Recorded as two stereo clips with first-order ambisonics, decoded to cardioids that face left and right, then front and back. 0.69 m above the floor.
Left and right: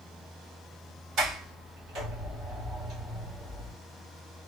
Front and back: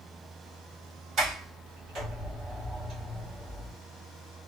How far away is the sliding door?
About 1.4 m.